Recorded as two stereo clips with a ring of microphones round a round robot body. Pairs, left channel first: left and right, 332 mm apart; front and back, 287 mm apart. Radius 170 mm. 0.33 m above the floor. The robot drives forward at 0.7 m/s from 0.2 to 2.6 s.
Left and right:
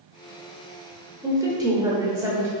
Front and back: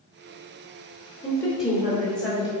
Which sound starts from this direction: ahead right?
A woman speaking, at 1.2 s.